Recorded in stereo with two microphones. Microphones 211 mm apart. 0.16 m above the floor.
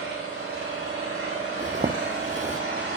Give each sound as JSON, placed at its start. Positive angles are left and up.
{"t": 0.0, "sound": "an engine running", "side_deg": -80, "distance_m": 8.5}
{"t": 1.6, "sound": "a zipper", "side_deg": -35, "distance_m": 1.1}